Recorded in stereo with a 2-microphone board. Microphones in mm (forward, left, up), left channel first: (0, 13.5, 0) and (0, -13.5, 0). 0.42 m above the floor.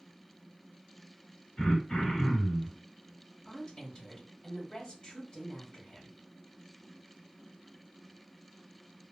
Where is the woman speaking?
35° left (ahead or behind), 1.8 m.